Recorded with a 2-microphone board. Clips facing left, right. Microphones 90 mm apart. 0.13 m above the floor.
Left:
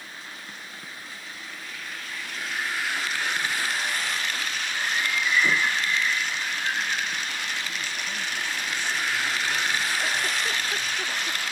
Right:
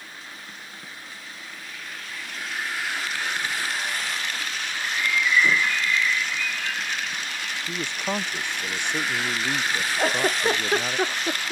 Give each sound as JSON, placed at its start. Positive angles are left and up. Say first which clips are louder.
{"t": 4.8, "sound": "a bird", "louder": "right 2 dB", "side_deg": 30}
{"t": 7.7, "sound": "a man speaking", "louder": "right 5 dB", "side_deg": -65}
{"t": 10.0, "sound": "a giggle", "louder": "right 5 dB", "side_deg": -50}